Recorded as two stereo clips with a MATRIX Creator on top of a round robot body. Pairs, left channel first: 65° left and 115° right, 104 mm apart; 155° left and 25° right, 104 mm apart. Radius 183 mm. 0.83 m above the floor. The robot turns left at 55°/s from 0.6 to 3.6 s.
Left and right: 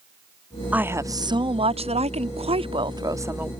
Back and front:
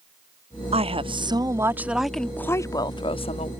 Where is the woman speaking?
35° right; by 3.5 s 170° left.